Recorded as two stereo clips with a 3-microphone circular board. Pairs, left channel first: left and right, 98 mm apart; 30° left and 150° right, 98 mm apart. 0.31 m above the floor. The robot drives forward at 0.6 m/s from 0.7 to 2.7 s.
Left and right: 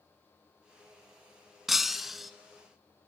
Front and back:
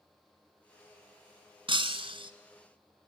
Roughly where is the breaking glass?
Behind.